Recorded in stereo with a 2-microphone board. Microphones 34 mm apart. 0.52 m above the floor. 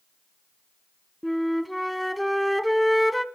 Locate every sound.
1.2 s a flute: centre (ahead or behind), 0.6 m